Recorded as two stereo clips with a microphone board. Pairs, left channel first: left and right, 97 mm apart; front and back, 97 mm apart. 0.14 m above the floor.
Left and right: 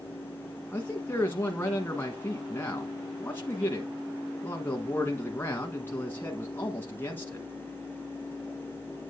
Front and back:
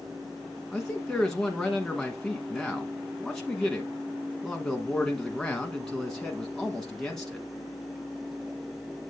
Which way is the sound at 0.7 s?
75° left.